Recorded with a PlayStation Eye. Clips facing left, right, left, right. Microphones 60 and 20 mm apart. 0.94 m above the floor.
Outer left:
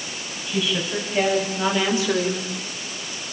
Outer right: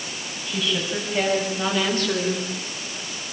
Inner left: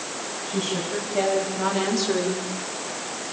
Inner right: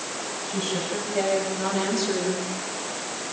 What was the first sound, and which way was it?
A woman speaking, centre (ahead or behind).